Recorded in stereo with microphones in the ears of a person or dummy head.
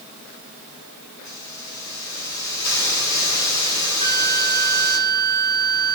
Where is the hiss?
90° left, 9 m.